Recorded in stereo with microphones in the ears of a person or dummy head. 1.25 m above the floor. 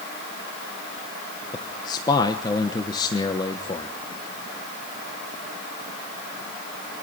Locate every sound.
1.5 s a man speaking: 25° left (ahead or behind), 1.1 m